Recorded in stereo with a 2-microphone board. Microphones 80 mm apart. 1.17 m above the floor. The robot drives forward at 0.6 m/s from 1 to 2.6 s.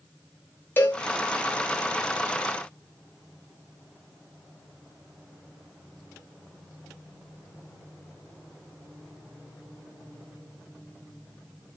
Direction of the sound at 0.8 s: 30° left (ahead or behind).